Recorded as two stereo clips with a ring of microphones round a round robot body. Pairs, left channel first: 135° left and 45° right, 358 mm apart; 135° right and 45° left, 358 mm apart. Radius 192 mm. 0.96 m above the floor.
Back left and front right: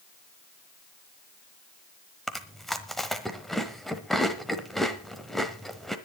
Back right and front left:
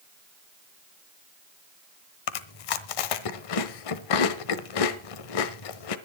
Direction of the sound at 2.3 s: 135° right.